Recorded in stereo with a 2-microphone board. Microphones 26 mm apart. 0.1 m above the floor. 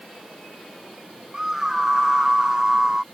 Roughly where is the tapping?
No tapping in this recording.